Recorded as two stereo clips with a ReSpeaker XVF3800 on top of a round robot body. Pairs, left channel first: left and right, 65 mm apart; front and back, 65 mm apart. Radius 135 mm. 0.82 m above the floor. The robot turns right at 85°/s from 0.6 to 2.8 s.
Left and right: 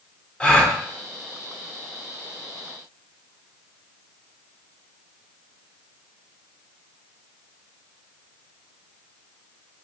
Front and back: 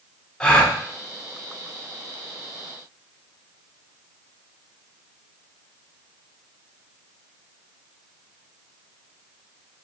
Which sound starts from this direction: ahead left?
A gasp, at 0.4 s.